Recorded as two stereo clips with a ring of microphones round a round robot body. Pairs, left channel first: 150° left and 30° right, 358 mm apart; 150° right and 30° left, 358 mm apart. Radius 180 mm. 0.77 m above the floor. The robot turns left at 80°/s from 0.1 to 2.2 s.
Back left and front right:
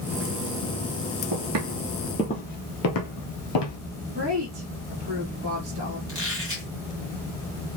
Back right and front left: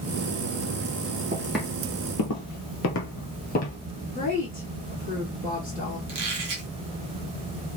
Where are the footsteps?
35° right, 1.2 m; by 3.8 s 145° left, 1.2 m.